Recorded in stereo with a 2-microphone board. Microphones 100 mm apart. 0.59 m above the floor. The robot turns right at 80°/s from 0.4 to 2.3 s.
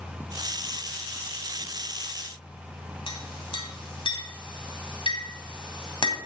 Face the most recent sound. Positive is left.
turn(degrees=55)  # may be behind; listen again after turning